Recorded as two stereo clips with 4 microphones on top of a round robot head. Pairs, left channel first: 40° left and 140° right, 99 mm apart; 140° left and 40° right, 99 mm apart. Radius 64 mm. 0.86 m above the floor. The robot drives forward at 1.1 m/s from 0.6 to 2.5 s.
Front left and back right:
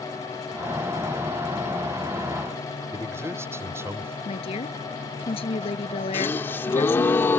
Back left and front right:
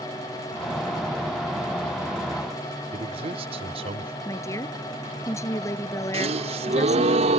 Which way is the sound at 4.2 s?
80° left.